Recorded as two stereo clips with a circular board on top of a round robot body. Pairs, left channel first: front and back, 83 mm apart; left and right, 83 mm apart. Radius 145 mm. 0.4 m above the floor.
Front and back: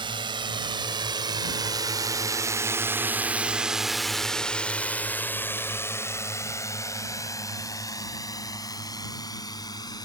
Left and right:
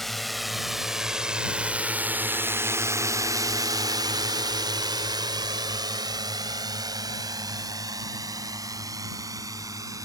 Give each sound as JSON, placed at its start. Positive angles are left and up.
{"t": 0.0, "sound": "a drone", "azimuth_deg": 175}